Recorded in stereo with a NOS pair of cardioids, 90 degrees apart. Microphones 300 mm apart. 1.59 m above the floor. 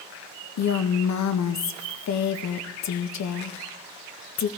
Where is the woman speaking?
65° left, 1.6 m.